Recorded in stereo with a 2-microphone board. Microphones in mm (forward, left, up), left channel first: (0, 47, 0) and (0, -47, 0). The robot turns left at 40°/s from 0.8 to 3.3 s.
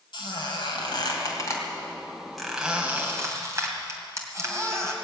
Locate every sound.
0.1 s a squeak: 60° left (ahead or behind), 2.5 m; by 4.9 s 35° right (ahead or behind), 2.5 m